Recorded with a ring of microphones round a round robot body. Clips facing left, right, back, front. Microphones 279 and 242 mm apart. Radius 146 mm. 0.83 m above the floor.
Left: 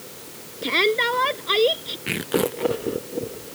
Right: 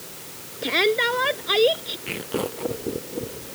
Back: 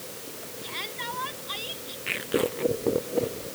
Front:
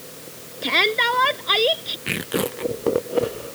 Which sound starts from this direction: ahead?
A shout, at 0.6 s.